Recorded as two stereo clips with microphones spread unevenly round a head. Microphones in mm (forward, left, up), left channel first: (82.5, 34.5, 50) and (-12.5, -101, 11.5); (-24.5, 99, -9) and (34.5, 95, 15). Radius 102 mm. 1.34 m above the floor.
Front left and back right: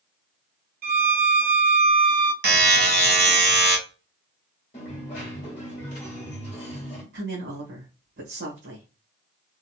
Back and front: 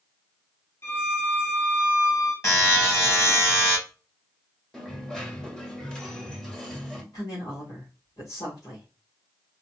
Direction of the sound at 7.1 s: 140° right.